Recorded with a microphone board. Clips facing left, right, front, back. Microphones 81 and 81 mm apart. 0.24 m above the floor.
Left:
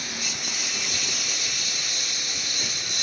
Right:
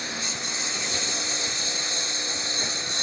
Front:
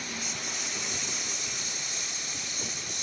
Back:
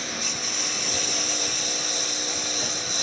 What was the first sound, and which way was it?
A lawn mower, 155° right.